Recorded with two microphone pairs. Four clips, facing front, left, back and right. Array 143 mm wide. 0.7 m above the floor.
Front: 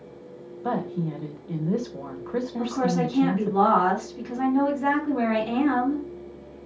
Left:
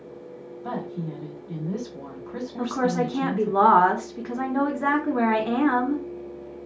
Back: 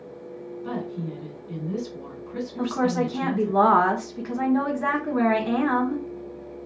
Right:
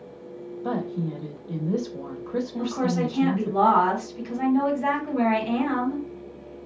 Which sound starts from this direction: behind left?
A woman speaking, at 2.6 s.